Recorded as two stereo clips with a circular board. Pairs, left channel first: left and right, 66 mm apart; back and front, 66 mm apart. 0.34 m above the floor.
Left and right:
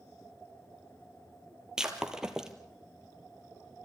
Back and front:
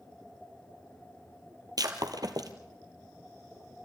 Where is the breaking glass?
10° right, 1.5 m.